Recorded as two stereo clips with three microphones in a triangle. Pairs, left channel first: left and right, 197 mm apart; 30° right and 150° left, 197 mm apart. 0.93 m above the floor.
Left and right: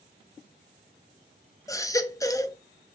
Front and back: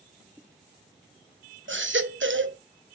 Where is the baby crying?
165° left, 0.7 m.